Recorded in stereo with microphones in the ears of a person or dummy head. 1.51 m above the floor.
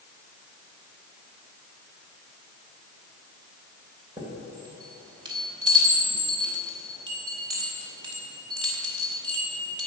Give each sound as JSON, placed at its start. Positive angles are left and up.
{"t": 4.2, "sound": "a chime", "side_deg": -25, "distance_m": 3.0}